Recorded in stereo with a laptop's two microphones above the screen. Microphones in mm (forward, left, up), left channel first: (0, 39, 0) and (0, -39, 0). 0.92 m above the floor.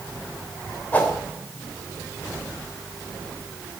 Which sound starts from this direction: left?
A whoosh, at 0.9 s.